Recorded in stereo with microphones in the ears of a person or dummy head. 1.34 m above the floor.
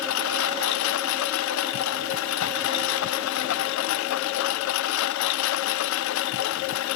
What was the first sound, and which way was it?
A lawn mower, 80° left.